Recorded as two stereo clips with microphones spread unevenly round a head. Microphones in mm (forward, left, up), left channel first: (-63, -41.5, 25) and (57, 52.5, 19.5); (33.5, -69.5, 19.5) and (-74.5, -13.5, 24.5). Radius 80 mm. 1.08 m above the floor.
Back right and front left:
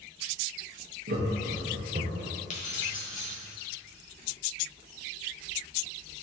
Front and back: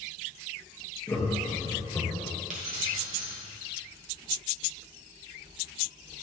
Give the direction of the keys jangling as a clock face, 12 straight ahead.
6 o'clock.